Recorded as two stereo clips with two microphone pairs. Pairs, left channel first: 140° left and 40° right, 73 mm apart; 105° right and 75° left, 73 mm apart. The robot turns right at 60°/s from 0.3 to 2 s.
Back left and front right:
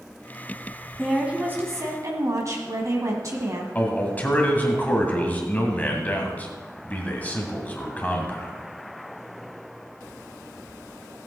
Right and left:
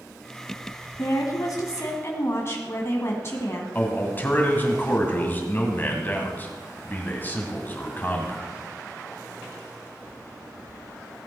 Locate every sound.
1.0 s a woman speaking: 125° right, 1.7 m; by 3.6 s 65° right, 1.7 m
3.8 s a man speaking: 160° right, 2 m